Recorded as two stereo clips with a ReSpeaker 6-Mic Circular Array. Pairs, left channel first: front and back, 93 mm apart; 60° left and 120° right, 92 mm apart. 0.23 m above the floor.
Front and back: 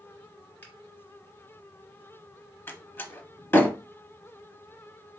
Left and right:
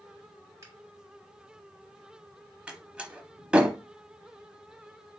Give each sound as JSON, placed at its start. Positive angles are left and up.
{"t": 0.6, "sound": "a finger snap", "azimuth_deg": -70, "distance_m": 2.0}
{"t": 2.7, "sound": "a door slam", "azimuth_deg": -50, "distance_m": 0.8}